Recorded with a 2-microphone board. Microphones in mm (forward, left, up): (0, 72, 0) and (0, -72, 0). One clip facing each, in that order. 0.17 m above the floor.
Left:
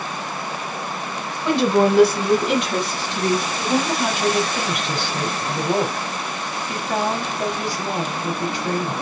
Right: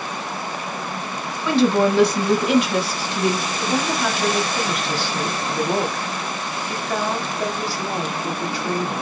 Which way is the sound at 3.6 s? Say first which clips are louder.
Left 1 dB; 20° left (ahead or behind).